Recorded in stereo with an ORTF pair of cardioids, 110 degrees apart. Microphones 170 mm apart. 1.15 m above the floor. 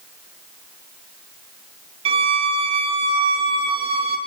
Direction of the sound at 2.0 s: 35° right.